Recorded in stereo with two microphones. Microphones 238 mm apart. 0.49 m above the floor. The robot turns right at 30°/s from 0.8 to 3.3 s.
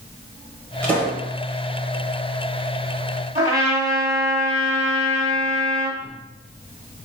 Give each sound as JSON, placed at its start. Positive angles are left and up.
{"t": 0.8, "sound": "a pop", "side_deg": 5, "distance_m": 1.2}
{"t": 3.4, "sound": "a trumpet", "side_deg": -20, "distance_m": 1.1}